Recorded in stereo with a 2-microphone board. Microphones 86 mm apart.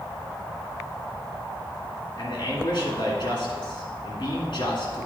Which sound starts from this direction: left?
A man speaking, at 2.2 s.